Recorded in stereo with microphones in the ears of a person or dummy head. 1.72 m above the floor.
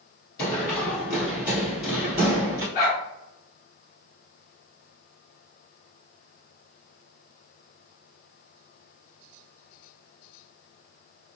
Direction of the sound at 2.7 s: 35° left (ahead or behind).